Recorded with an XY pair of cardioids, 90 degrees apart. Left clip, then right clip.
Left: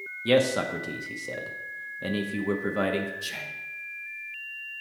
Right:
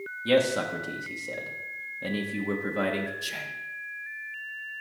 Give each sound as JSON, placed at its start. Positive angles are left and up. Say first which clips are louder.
{"t": 0.2, "sound": "a man speaking", "louder": "left 1 dB", "azimuth_deg": 25, "distance_m": 1.0}
{"t": 3.2, "sound": "whispering", "louder": "even", "azimuth_deg": -5, "distance_m": 0.8}